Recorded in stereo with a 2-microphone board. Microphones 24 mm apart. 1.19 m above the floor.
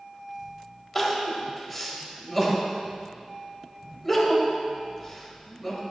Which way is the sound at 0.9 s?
Centre (ahead or behind).